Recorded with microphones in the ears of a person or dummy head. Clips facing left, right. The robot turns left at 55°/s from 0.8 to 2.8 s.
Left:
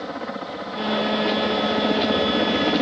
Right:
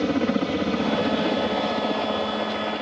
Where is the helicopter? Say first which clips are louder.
Right 9 dB; 140° right; by 2.8 s 110° left.